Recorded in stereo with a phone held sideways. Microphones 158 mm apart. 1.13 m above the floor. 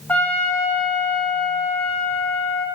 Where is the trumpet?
10° left (ahead or behind), 2.0 m.